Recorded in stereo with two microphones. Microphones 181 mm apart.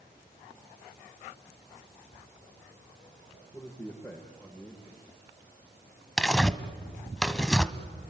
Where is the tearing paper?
5° left (ahead or behind), 1.2 m.